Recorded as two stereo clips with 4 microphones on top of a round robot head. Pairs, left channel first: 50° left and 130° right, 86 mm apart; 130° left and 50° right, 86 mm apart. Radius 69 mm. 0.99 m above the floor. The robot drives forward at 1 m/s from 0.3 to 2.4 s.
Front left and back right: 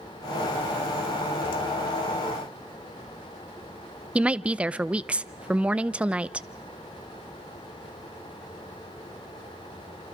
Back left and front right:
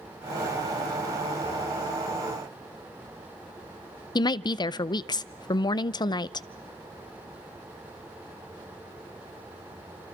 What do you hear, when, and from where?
4.2 s a woman speaking: 155° left, 0.6 m